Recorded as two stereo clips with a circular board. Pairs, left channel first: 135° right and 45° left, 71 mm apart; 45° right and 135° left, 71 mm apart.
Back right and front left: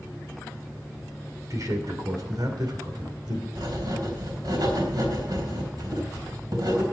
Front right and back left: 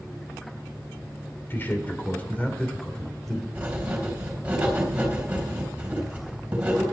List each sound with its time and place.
1.5 s a man speaking: 10° left, 2.5 m; by 3.5 s 40° left, 3 m
3.5 s writing: 60° left, 3.5 m